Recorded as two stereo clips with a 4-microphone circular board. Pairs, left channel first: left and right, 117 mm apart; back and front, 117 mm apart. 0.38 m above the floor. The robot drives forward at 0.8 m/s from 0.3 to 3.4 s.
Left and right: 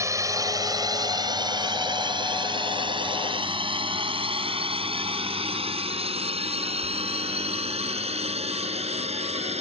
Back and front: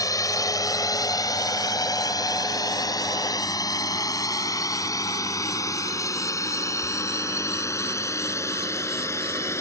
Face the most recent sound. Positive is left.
turn(degrees=-115)